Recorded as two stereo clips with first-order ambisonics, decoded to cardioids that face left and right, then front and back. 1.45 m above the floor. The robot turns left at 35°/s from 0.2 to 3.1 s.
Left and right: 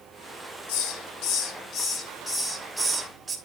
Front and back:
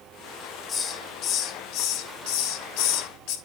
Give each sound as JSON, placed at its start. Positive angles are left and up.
{"t": 0.7, "sound": "a hiss", "azimuth_deg": 75, "distance_m": 3.0}